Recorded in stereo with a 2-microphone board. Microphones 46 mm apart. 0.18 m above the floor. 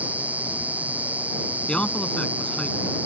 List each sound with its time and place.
0.0 s an insect: 35° right (ahead or behind)
1.7 s a man speaking: 20° left (ahead or behind)